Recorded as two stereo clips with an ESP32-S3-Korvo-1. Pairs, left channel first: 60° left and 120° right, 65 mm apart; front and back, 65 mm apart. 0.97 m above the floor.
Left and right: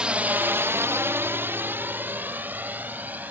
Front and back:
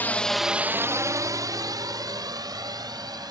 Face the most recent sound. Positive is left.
turn(degrees=180)